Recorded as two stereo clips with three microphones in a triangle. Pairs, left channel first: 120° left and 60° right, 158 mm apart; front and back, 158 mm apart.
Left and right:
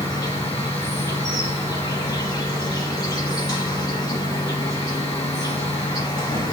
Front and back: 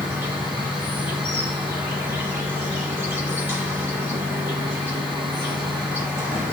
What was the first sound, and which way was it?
An insect, 130° left.